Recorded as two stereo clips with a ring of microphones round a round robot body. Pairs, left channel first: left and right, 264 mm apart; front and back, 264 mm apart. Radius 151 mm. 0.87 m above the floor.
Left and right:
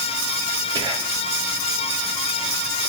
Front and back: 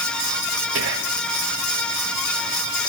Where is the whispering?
160° right, 1.2 m.